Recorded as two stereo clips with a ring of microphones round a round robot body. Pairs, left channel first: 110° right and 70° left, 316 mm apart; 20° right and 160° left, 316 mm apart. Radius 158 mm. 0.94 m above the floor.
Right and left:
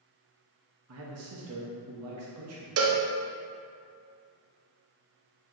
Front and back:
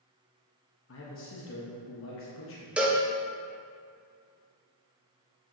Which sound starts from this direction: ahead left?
A man speaking, at 0.9 s.